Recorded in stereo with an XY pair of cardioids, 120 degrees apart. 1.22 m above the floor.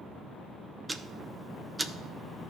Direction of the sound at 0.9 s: 15° right.